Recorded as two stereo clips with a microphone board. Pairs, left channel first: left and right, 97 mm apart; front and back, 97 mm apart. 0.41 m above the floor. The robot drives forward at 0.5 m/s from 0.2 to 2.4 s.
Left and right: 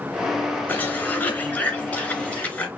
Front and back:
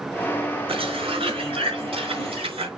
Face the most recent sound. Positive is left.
turn(degrees=165)